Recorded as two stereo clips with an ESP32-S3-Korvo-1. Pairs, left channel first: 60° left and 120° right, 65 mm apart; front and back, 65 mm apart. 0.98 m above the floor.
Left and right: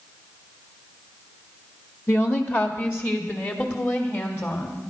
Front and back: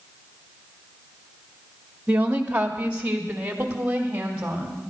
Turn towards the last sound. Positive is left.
turn(degrees=110)